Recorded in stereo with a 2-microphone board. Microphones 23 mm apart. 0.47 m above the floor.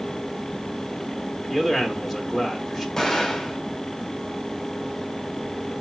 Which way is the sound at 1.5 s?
5° right (ahead or behind).